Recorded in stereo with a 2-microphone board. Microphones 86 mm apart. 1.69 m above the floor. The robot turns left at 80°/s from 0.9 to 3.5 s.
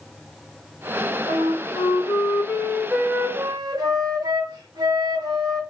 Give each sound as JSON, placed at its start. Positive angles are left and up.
{"t": 1.3, "sound": "a flute", "azimuth_deg": 130, "distance_m": 1.7}